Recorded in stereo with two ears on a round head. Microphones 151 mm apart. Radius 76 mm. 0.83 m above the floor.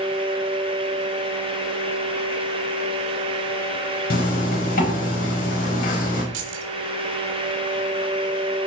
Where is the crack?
No crack in this recording.